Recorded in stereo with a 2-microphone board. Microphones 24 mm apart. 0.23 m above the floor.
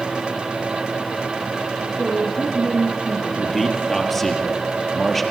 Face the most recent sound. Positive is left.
turn(degrees=5)  # may be behind; listen again after turning